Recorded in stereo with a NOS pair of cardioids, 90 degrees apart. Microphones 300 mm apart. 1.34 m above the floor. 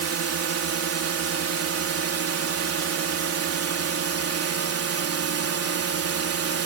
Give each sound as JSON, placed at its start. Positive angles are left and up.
{"t": 0.0, "sound": "a drone", "azimuth_deg": -50}